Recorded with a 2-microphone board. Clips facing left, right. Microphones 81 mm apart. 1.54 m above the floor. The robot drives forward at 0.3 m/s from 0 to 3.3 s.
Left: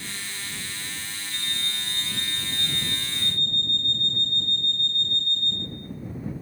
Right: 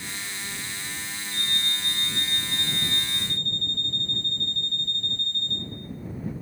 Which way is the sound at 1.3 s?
40° left (ahead or behind).